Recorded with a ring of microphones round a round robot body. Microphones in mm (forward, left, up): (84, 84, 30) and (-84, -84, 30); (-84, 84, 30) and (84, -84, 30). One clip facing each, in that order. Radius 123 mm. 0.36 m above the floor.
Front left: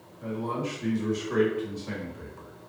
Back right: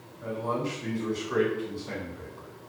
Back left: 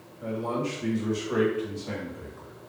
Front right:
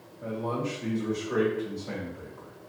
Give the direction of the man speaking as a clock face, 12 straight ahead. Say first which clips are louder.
Even, back left 2 dB; 10 o'clock.